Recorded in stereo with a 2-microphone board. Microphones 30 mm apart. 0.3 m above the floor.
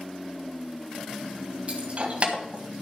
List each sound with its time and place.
1.7 s keys jangling: 40° right (ahead or behind), 1.6 m